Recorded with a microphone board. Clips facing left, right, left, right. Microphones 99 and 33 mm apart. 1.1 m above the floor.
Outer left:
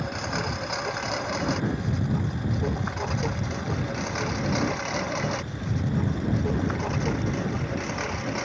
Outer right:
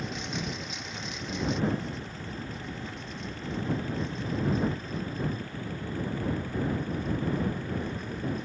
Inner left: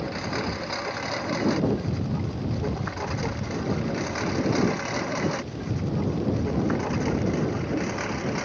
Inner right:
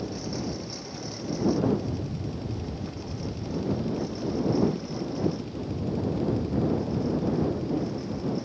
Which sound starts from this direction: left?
A lawn mower, at 0.0 s.